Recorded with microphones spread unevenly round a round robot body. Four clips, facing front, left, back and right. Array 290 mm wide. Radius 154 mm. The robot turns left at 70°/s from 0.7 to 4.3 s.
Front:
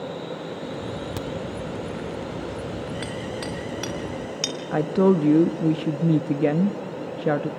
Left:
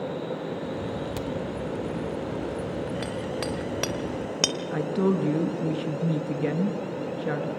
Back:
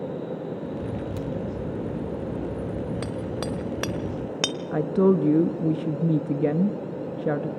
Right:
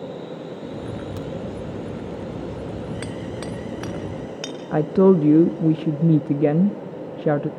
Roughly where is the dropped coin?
No dropped coin in this recording.